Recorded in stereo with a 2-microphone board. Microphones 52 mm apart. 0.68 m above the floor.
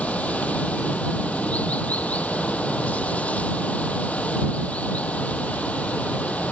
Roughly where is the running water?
Left.